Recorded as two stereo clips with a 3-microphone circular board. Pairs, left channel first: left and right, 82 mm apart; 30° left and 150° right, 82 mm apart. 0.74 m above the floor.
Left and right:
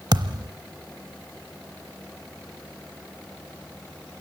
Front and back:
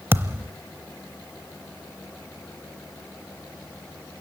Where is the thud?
90° right, 0.7 m.